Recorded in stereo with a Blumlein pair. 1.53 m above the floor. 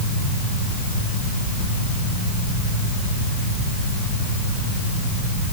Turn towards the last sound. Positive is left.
No sound to turn to.